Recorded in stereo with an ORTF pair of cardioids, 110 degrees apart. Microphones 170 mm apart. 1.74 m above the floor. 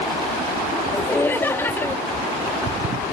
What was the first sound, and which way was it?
Laughter, 15° left.